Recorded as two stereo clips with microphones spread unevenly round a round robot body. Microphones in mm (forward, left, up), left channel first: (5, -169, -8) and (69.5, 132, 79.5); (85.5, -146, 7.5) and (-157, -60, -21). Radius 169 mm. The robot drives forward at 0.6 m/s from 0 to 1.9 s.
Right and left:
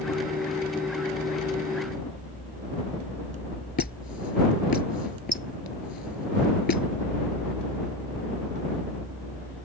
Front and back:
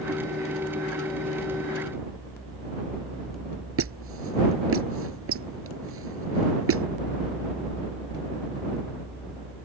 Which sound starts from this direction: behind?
A squeak, at 3.8 s.